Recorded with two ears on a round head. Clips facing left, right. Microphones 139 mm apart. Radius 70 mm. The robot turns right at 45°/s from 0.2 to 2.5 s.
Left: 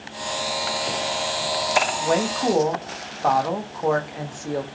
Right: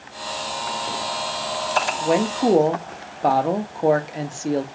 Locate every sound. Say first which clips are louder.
2.0 s a woman speaking: right 2 dB; 10° right (ahead or behind), 0.9 m; by 4.6 s 30° right (ahead or behind), 0.9 m